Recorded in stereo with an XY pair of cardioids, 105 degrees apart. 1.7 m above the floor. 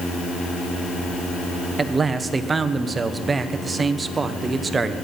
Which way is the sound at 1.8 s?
30° right.